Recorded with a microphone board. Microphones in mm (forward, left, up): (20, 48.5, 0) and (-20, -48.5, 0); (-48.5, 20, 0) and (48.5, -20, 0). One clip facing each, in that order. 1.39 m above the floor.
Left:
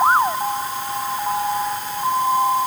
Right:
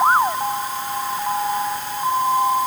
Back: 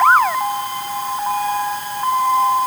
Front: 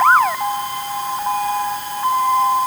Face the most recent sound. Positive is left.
No sound to turn to.